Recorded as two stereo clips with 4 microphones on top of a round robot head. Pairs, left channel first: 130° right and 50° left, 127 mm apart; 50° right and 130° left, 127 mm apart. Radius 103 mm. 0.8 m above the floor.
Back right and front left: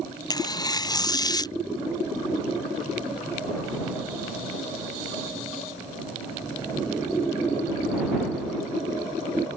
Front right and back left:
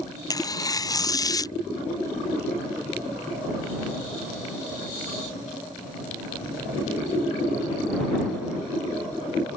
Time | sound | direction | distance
0.3 | tearing paper | 90° right | ?